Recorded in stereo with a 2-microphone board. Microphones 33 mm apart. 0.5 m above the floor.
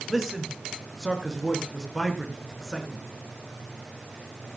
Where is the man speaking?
Centre (ahead or behind), 5.5 m.